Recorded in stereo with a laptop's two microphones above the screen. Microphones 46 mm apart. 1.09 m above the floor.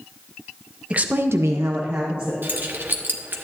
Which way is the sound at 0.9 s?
25° right (ahead or behind).